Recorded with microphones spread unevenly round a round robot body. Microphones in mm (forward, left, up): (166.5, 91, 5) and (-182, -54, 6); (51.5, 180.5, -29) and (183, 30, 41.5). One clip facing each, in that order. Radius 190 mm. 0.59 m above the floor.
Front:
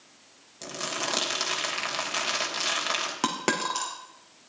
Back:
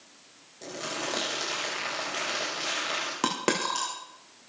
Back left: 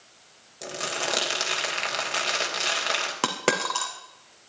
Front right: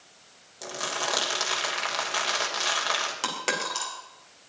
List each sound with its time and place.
0.6 s crumpling: 75° left, 3 m
3.2 s a dropped coin: 105° left, 3 m